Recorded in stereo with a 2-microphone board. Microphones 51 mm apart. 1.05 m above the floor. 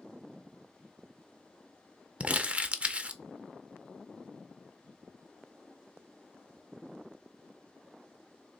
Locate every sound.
2.2 s crumpling: 25° right (ahead or behind), 0.5 m